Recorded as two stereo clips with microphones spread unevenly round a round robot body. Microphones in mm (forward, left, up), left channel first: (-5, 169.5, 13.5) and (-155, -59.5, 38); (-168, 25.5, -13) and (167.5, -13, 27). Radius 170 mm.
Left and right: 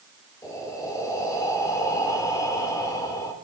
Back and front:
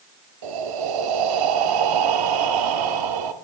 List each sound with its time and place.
0.4 s breathing: 20° right, 0.9 m